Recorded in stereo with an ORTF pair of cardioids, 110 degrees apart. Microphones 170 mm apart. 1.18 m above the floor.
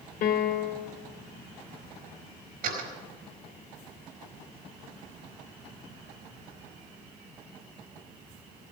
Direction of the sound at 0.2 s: 70° left.